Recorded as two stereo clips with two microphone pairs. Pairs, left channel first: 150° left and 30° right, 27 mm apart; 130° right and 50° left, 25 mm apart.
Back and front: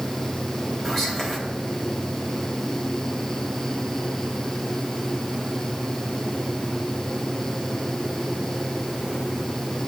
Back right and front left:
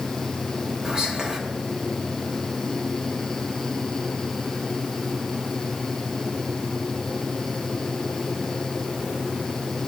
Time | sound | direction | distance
0.8 | whispering | 75° left | 1.2 m